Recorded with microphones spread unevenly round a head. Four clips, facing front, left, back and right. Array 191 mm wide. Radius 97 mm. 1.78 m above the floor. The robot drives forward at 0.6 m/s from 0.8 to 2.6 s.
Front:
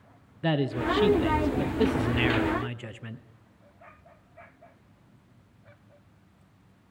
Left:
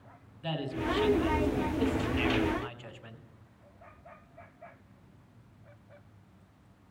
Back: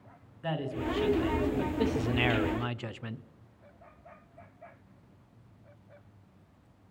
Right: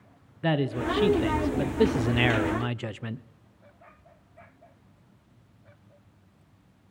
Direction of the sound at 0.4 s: 45° right.